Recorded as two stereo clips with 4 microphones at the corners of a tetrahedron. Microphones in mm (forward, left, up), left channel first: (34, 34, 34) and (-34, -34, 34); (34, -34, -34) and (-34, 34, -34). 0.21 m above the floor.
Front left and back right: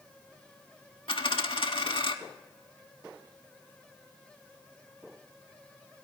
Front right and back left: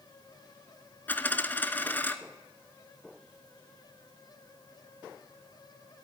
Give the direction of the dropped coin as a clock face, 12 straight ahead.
11 o'clock.